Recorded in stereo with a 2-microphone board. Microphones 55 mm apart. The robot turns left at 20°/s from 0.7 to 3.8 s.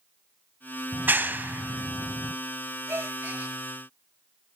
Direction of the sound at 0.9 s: 35° right (ahead or behind).